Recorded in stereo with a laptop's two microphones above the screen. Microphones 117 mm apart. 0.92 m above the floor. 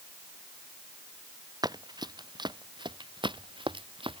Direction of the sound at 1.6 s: 35° right (ahead or behind).